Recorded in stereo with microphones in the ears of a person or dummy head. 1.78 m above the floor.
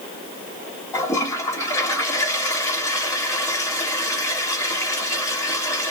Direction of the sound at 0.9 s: 15° left (ahead or behind).